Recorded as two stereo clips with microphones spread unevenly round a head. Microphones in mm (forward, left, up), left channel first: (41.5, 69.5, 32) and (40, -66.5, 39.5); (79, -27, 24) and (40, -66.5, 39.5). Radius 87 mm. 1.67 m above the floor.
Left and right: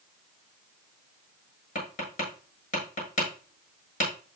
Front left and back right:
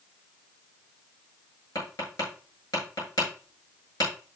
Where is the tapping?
55° left, 8 m.